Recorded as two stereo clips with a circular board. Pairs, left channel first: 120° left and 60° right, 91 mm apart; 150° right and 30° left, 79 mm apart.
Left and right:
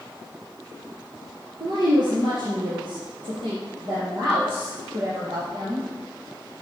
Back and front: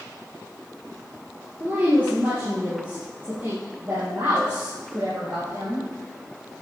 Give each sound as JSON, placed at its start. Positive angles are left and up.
{"t": 1.6, "sound": "a woman speaking", "azimuth_deg": -35, "distance_m": 3.0}